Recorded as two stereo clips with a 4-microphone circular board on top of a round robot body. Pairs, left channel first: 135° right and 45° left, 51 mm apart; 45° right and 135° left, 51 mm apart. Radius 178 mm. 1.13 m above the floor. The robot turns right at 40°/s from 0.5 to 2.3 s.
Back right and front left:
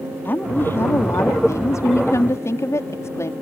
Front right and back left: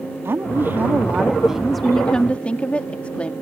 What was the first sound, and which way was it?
A woman speaking, 175° left.